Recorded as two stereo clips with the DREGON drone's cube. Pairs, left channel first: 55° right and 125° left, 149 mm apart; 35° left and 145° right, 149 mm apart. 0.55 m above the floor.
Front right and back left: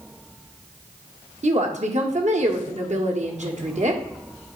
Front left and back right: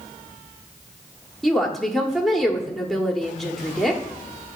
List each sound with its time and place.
1.4 s a woman speaking: 125° left, 1.1 m